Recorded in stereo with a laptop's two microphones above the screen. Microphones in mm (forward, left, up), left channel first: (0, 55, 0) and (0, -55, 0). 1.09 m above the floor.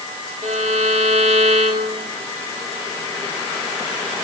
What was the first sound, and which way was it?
A violin, 80° right.